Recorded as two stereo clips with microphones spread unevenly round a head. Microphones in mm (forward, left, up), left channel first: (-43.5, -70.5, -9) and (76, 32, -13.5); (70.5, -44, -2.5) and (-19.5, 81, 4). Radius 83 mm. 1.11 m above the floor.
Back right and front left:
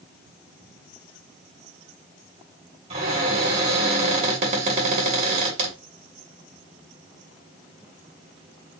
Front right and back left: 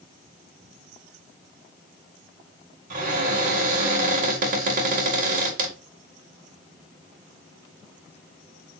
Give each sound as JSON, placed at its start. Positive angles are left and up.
{"t": 2.9, "sound": "a cupboard door", "azimuth_deg": 95, "distance_m": 1.9}